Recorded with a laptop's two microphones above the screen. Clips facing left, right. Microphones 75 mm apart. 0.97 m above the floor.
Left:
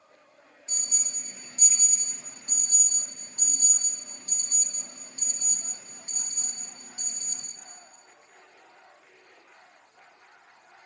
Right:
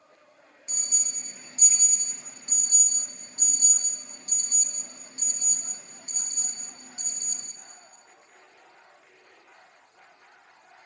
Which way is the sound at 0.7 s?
20° right (ahead or behind).